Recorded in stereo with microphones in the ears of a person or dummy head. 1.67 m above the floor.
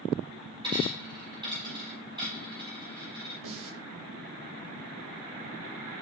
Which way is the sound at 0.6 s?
30° right (ahead or behind).